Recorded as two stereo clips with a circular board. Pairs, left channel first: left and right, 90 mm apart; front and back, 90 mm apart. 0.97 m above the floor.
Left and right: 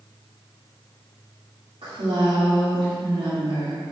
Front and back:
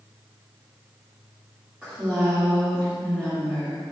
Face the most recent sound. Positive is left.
turn(degrees=-100)